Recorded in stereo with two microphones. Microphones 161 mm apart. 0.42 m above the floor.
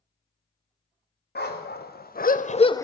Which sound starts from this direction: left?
A dog barking, at 1.4 s.